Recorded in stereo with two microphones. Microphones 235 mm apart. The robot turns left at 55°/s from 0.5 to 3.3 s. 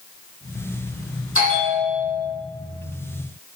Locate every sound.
1.4 s a bell: 105° left, 8 m; by 2.3 s 50° left, 8 m